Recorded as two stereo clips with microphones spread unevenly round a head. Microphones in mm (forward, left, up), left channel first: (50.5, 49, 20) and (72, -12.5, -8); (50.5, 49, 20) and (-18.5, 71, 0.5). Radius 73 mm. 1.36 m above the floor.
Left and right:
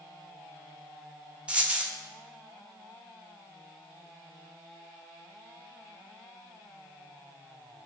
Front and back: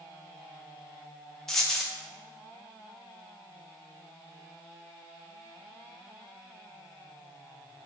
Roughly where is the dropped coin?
Ahead left.